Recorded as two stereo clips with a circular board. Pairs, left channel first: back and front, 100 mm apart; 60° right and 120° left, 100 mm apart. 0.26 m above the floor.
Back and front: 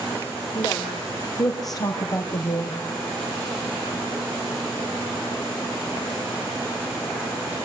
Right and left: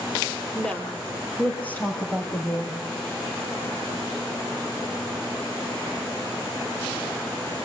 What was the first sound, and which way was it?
A woman speaking, 140° right.